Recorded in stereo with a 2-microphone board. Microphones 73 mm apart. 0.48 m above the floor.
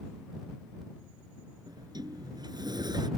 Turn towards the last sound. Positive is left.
turn(degrees=-70)  # may be behind; listen again after turning